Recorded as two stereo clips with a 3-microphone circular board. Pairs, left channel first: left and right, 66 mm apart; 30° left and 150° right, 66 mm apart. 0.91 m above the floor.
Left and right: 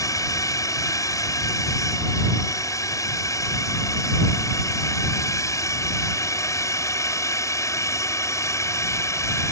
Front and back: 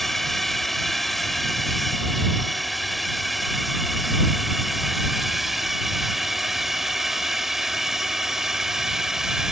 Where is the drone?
115° left; by 9.5 s 125° left.